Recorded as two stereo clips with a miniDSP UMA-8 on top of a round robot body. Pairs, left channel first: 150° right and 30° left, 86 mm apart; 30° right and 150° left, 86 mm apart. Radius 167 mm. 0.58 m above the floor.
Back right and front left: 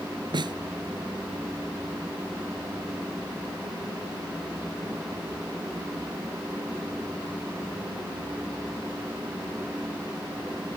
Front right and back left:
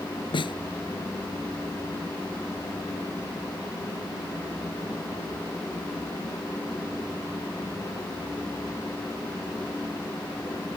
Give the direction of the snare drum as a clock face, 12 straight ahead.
12 o'clock.